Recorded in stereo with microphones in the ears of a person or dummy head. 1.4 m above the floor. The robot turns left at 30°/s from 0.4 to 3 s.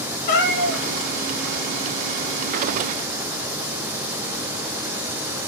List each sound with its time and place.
0.3 s a cat meowing: 50° left (ahead or behind), 1.1 m; by 0.8 s 40° left (ahead or behind), 1.1 m